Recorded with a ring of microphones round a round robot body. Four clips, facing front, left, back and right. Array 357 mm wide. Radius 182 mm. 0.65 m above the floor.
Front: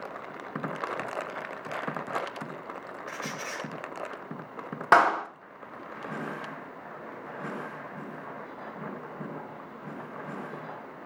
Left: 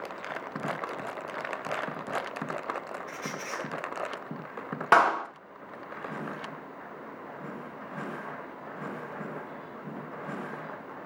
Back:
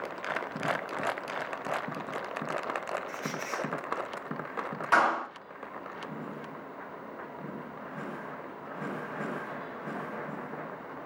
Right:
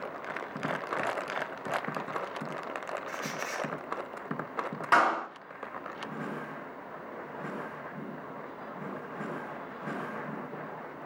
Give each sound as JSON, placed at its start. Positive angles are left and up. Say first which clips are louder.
{"t": 3.1, "sound": "a squeak", "louder": "right 1 dB, back 1 dB", "azimuth_deg": -5, "distance_m": 1.4}
{"t": 4.9, "sound": "a clap", "louder": "left 3 dB, front 5 dB", "azimuth_deg": 35, "distance_m": 1.8}